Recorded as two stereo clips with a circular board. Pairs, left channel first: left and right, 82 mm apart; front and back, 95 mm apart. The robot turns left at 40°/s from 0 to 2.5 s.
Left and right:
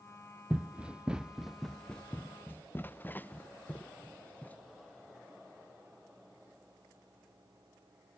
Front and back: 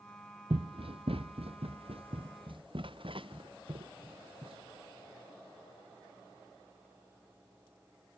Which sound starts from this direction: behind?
Running footsteps, at 0.5 s.